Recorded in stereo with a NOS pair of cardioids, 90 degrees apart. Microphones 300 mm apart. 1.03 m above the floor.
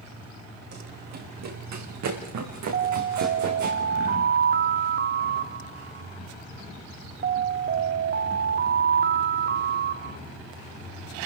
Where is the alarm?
35° right, 1.0 m.